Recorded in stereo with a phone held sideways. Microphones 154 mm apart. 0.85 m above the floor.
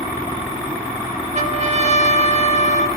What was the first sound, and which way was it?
A trumpet, 50° right (ahead or behind).